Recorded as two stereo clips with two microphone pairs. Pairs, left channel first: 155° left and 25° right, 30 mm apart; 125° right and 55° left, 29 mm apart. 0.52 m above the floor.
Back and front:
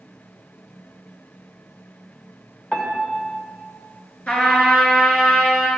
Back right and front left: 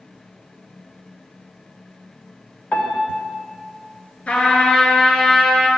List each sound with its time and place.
2.7 s a piano: 155° right, 1.2 m
4.3 s a trumpet: 170° right, 1.8 m